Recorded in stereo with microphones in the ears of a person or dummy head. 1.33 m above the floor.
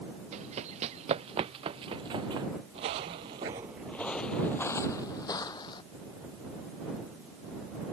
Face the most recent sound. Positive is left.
turn(degrees=25)  # may be behind; listen again after turning